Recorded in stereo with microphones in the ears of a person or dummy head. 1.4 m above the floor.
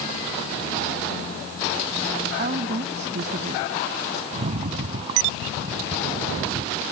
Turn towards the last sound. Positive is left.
turn(degrees=-30)  # may be behind; listen again after turning